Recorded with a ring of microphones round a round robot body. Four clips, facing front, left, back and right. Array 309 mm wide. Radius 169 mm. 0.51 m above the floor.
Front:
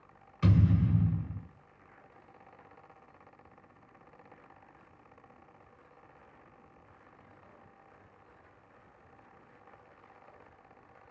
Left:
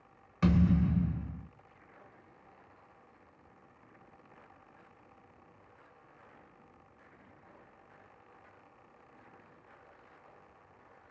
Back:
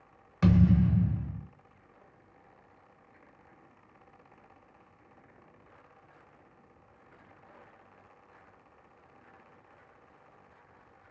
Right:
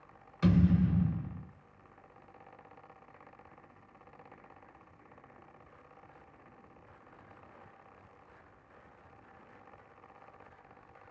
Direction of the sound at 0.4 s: 155° left.